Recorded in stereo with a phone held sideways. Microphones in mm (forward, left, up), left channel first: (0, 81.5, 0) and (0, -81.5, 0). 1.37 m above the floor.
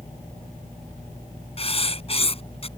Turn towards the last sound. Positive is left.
turn(degrees=35)  # may be behind; listen again after turning